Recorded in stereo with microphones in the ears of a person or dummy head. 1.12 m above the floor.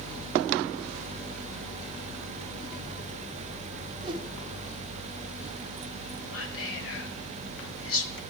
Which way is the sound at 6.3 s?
65° left (ahead or behind).